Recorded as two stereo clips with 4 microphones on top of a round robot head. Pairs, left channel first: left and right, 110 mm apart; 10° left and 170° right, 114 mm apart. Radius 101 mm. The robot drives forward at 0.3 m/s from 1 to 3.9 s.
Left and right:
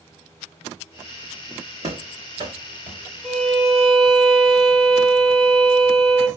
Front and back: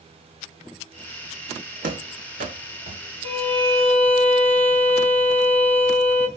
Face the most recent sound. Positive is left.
turn(degrees=175)